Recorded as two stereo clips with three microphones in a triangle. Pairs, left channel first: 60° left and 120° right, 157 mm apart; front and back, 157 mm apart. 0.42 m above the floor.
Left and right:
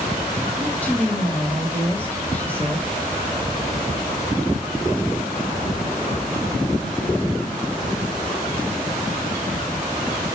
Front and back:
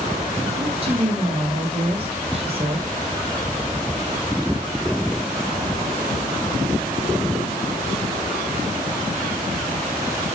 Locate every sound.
0.6 s a woman speaking: 140° left, 1.6 m